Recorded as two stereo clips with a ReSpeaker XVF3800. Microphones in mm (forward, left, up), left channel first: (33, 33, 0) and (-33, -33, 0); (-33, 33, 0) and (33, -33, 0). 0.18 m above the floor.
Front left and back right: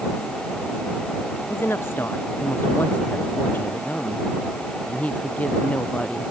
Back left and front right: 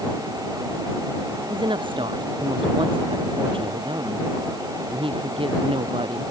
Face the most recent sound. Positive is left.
turn(degrees=-30)